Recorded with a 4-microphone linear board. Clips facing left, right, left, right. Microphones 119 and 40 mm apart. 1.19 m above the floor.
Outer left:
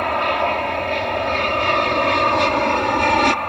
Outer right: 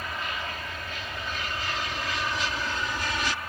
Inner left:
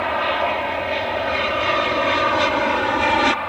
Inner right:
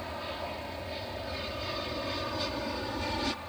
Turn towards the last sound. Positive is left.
turn(degrees=65)  # may be behind; listen again after turning